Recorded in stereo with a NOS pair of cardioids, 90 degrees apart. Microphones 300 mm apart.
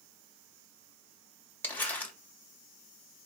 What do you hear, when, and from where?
1.6 s crumpling: 5° left, 1.7 m